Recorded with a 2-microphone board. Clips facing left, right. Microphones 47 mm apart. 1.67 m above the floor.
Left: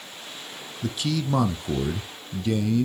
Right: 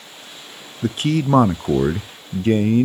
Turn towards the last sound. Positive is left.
turn(degrees=-45)  # may be behind; listen again after turning